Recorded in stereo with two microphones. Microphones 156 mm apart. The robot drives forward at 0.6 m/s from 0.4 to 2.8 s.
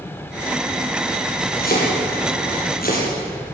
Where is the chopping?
75° left (ahead or behind), 7 m.